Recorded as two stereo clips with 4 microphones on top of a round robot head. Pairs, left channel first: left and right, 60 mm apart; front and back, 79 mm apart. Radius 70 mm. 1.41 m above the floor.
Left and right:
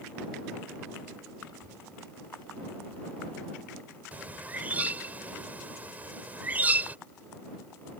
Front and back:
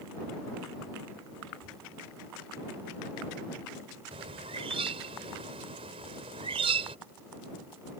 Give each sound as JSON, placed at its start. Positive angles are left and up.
{"t": 1.4, "sound": "a child speaking", "azimuth_deg": 80}
{"t": 4.1, "sound": "a bird", "azimuth_deg": -155}